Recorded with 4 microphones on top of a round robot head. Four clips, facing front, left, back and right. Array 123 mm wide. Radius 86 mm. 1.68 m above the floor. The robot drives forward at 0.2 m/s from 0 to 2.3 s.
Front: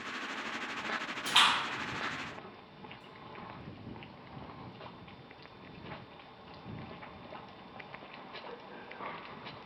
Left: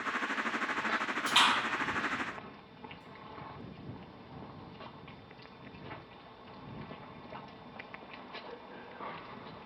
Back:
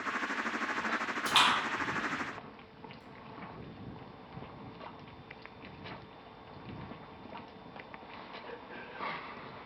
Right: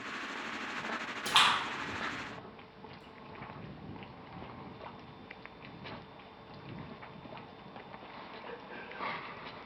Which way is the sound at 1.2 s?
135° right.